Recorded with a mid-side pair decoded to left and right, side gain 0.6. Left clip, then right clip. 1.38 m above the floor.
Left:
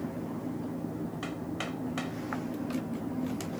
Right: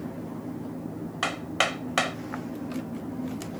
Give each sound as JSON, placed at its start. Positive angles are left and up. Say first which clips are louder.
{"t": 1.2, "sound": "hammering", "louder": "right 14 dB", "azimuth_deg": -60}